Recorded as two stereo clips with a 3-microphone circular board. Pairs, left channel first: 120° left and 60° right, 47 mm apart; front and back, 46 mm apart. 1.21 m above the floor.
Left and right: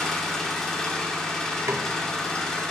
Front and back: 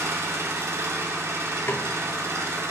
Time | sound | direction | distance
0.0 | an engine running | 160° right | 1.6 m
1.7 | a snare drum | 40° right | 0.7 m